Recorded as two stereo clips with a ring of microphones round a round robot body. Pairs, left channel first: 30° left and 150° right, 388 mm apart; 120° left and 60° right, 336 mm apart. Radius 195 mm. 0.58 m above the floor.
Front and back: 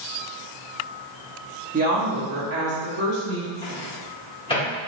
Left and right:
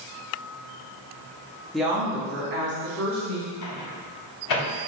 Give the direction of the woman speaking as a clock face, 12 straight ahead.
5 o'clock.